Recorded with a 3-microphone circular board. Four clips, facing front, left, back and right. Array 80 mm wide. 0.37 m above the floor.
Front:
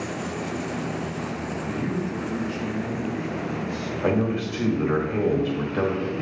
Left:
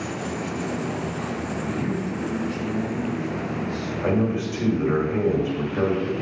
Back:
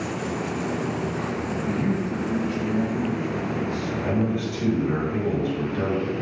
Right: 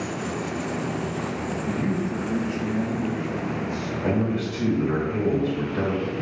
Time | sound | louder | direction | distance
1.7 | a man speaking | right 2 dB, back 3 dB | 165° right | 1.8 m
4.0 | a man speaking | left 2 dB, front 3 dB | 20° left | 1.6 m